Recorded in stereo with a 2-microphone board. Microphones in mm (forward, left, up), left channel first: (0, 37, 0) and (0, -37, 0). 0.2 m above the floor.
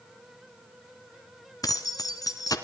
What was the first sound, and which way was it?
Keys jangling, 55° left (ahead or behind).